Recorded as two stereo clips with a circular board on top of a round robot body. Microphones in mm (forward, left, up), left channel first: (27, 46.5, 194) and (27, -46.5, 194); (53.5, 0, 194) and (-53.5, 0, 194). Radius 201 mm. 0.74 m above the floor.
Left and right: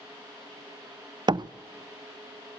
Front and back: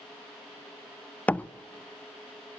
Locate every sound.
1.3 s a door slam: 75° right, 0.7 m